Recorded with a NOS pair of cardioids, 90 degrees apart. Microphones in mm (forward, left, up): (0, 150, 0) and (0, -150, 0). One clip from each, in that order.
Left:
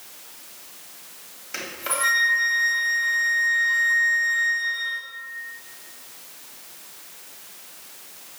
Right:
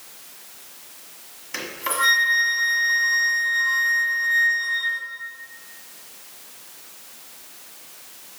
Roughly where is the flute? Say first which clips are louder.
Right 3 dB; ahead.